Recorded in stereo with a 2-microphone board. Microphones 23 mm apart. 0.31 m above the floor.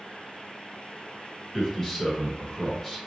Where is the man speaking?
5° left (ahead or behind), 1.7 m.